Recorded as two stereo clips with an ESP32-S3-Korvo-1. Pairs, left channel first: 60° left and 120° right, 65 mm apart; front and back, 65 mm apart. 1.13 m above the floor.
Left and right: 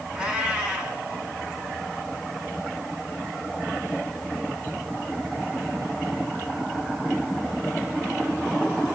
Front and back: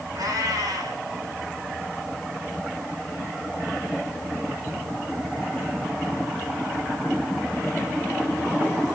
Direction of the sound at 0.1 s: 170° left.